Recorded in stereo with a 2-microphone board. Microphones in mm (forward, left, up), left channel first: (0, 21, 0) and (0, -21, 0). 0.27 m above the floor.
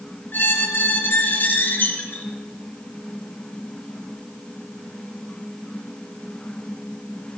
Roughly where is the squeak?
Left.